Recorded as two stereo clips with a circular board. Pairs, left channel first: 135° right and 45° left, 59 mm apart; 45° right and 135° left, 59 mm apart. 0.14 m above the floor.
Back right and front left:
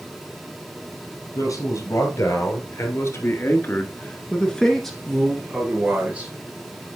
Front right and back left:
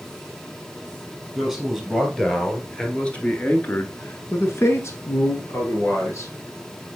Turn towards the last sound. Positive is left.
turn(degrees=-15)